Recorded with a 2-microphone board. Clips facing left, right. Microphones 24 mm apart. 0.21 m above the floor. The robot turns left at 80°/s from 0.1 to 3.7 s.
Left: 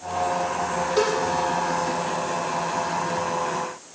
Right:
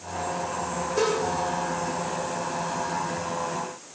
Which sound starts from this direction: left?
A cowbell, at 1.0 s.